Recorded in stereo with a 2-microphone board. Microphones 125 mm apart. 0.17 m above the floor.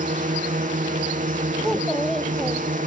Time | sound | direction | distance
0.0 | a drone | 80° right | ?
1.6 | a child speaking | centre (ahead or behind) | ?